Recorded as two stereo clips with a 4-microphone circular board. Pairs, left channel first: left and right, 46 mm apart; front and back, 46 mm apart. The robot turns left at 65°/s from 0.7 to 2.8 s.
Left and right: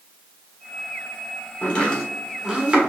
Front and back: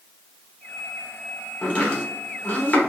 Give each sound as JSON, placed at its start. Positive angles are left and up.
{"t": 1.6, "sound": "chopping", "azimuth_deg": 45, "distance_m": 1.0}